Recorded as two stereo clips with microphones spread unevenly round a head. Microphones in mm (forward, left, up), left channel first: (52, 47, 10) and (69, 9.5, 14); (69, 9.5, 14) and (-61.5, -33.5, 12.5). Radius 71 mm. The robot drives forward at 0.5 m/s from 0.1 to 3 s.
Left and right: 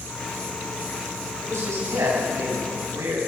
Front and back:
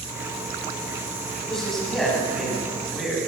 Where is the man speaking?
70° right, 10 m; by 3.2 s 75° right, 9.5 m.